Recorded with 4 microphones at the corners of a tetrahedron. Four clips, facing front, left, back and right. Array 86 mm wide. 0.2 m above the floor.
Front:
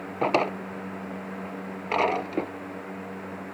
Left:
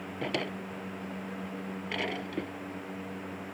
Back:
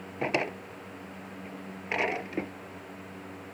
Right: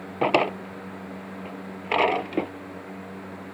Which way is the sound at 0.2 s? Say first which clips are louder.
Right 13 dB, front 6 dB; 65° right.